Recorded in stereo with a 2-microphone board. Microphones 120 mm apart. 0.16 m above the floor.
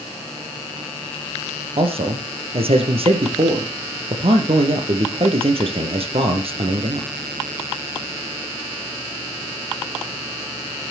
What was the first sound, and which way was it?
A man speaking, 50° right (ahead or behind).